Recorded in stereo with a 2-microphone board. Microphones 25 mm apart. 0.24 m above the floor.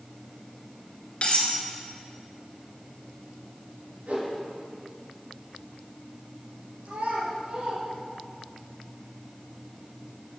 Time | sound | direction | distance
1.2 | cutlery clinking | 45° left (ahead or behind) | 1.9 m
4.1 | a whoosh | 65° right (ahead or behind) | 3 m
6.8 | a child speaking | 65° right (ahead or behind) | 3 m